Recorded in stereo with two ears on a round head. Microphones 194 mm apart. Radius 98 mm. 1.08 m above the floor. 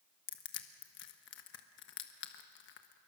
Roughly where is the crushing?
Left.